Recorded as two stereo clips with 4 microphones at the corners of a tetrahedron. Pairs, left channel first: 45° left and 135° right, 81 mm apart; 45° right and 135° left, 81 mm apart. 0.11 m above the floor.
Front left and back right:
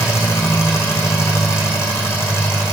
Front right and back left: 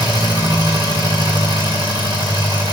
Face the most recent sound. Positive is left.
turn(degrees=100)